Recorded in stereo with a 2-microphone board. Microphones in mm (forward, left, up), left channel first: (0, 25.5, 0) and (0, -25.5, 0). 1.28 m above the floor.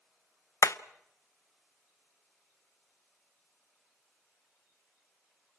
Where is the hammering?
80° left, 0.8 m.